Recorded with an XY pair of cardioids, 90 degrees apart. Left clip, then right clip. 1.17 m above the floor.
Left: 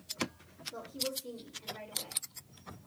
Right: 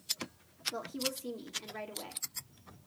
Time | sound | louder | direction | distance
0.7 | a woman speaking | left 2 dB | 65° right | 2 m